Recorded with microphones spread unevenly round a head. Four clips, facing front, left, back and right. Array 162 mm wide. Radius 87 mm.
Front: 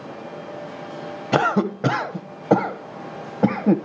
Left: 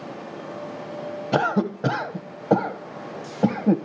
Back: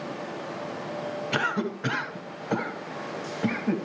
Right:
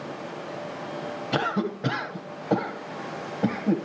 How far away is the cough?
About 1.2 m.